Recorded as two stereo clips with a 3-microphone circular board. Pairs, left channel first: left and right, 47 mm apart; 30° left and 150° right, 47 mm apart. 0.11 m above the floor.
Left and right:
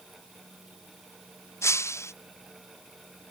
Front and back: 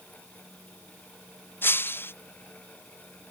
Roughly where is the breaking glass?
Left.